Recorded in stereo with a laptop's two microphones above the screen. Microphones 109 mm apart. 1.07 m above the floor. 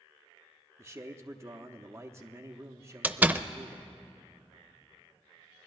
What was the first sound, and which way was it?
A man speaking, 25° right (ahead or behind).